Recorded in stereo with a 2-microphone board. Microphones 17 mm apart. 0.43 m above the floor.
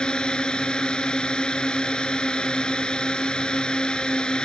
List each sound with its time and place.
0.0 s a drone: 70° left (ahead or behind)